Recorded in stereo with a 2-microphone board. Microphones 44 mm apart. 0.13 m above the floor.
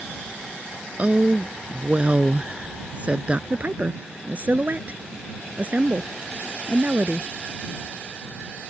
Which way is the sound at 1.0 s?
30° right (ahead or behind).